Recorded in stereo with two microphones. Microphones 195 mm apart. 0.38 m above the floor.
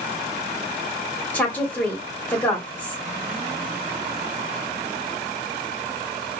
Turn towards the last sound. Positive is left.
turn(degrees=10)  # may be behind; listen again after turning